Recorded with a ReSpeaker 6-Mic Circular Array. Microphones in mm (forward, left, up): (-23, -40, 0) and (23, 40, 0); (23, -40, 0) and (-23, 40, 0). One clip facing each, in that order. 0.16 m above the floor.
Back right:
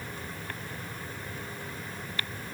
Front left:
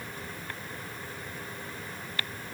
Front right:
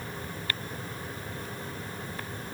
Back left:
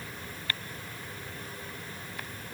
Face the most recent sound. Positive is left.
No sound to turn to.